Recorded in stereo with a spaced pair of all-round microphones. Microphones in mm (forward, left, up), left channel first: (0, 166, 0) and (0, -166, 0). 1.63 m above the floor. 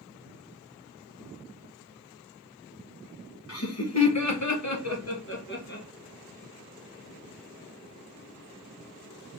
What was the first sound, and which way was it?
Laughter, 45° left (ahead or behind).